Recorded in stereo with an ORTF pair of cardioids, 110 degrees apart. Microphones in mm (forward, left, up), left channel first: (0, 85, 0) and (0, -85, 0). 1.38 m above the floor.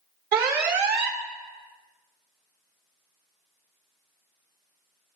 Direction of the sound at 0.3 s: 65° right.